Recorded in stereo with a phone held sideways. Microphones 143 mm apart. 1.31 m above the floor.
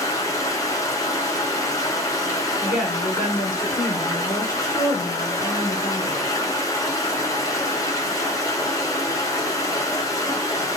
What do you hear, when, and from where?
0.0 s running water: 25° left (ahead or behind), 0.7 m
2.6 s a woman speaking: 65° left (ahead or behind), 1.6 m